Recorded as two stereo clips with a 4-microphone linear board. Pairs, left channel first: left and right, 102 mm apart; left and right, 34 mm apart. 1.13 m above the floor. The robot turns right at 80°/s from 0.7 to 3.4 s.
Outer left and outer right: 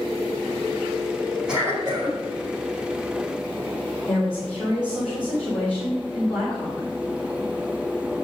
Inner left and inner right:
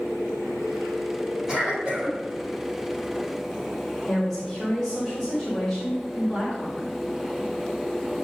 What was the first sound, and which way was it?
A cough, 175° right.